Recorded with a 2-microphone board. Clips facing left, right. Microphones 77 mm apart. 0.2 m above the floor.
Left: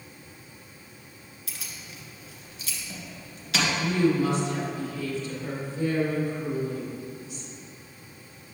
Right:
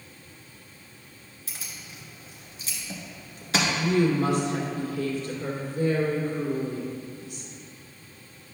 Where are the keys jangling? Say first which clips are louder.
Even; 35° right (ahead or behind), 1.8 m.